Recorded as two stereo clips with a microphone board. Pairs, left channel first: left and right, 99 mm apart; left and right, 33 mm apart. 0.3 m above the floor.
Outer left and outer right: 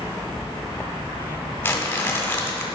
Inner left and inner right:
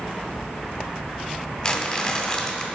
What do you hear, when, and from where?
1.6 s crumpling: 20° left (ahead or behind), 1.7 m